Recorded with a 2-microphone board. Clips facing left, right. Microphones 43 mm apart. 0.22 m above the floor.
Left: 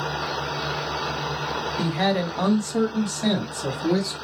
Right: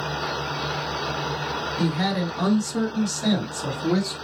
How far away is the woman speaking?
About 1.4 m.